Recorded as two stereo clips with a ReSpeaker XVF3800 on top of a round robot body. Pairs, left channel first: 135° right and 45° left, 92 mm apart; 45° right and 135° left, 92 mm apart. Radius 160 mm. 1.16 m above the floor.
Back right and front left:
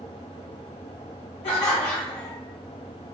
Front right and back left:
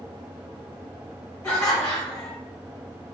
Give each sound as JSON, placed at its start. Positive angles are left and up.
{"t": 1.4, "sound": "laughter", "azimuth_deg": -115, "distance_m": 0.6}